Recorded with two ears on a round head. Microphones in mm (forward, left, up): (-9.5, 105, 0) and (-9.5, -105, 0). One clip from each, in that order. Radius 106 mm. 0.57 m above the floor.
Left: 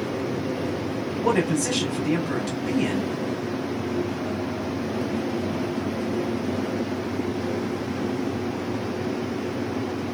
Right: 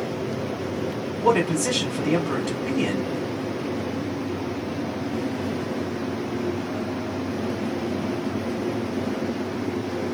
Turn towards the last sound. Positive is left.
turn(degrees=-5)  # may be behind; listen again after turning